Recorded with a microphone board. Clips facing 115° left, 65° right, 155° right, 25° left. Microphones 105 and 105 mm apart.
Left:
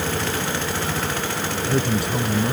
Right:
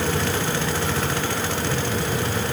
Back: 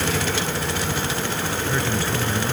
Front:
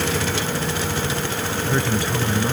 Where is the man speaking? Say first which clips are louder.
Left 3 dB, front 4 dB; 95° left.